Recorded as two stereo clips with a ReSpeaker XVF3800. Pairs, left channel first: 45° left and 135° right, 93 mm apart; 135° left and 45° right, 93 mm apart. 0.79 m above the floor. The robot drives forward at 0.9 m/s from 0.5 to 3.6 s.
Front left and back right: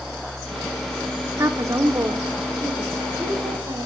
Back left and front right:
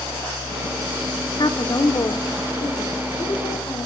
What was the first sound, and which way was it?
A woman speaking, 170° left.